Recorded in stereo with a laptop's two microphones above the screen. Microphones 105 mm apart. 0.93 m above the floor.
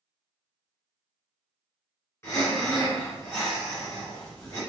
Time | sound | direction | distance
2.2 | breathing | 25° left (ahead or behind) | 2.0 m